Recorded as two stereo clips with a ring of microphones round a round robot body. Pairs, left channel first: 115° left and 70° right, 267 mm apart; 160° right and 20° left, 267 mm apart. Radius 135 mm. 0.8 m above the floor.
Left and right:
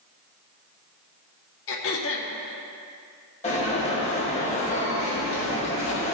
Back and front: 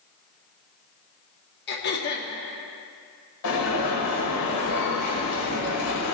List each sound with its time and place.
1.7 s throat clearing: 150° left, 1.2 m
3.4 s an alarm: straight behind, 2.5 m